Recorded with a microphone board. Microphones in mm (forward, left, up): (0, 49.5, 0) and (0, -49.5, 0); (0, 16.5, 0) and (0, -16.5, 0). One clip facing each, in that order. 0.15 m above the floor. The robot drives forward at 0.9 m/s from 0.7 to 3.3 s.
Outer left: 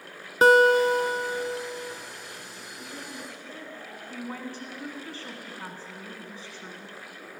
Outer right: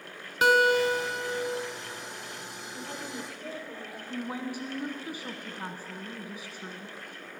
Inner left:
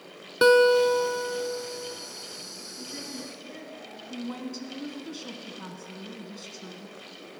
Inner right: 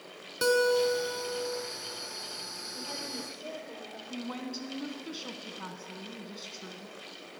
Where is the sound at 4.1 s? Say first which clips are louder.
Outer right 2 dB, inner left 3 dB; 15° right (ahead or behind), 1.0 m.